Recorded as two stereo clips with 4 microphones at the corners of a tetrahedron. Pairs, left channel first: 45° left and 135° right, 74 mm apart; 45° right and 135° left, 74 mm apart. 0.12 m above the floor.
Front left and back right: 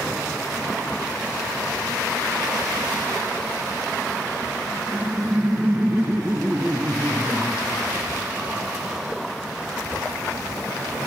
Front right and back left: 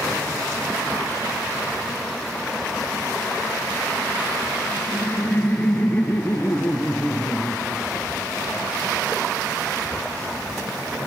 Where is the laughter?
90° right, 1.4 m.